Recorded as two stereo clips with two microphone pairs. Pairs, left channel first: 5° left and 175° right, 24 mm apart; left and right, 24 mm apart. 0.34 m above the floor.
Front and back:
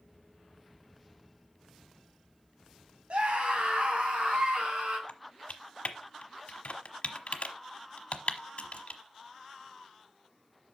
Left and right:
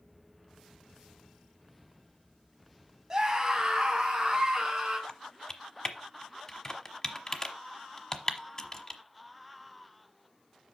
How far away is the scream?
About 2 m.